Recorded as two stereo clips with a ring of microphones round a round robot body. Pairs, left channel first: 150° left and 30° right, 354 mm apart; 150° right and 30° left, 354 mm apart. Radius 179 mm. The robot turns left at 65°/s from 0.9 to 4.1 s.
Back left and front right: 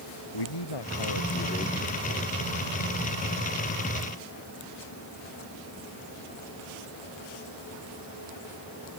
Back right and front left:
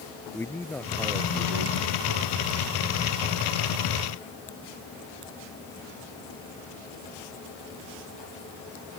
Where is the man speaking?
125° left; by 2.3 s 30° left.